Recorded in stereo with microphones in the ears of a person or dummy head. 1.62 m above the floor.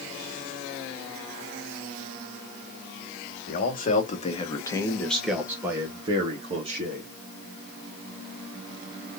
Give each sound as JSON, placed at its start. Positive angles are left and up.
{"t": 3.5, "sound": "a man speaking", "side_deg": 60, "distance_m": 1.8}